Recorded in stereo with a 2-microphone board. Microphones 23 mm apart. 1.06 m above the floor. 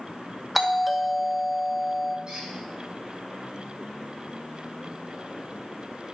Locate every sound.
0.6 s a doorbell: centre (ahead or behind), 1.1 m
2.3 s a squeak: 30° right (ahead or behind), 5.5 m